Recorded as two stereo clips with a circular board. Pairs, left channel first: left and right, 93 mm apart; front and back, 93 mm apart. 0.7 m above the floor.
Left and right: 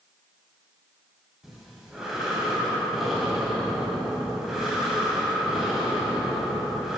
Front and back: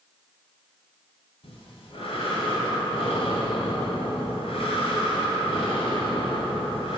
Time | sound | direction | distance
1.4 | breathing | straight ahead | 1.8 m